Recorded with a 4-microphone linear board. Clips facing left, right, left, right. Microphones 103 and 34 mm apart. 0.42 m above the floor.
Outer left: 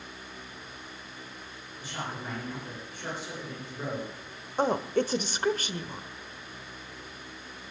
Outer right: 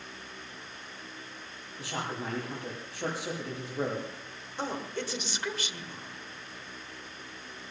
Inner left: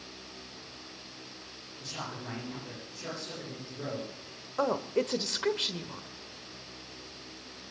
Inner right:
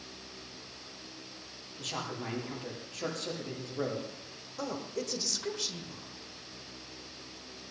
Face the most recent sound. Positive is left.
turn(degrees=45)  # may be behind; listen again after turning